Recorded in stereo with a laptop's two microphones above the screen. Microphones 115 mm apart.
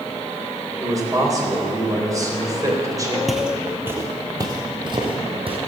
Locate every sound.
0.8 s a man speaking: 30° right (ahead or behind), 3.5 m
3.3 s footsteps: centre (ahead or behind), 1.2 m; by 5.6 s 50° right (ahead or behind), 2 m